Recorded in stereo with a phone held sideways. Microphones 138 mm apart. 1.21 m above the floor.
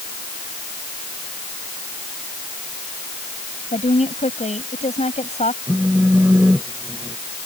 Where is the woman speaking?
55° left (ahead or behind).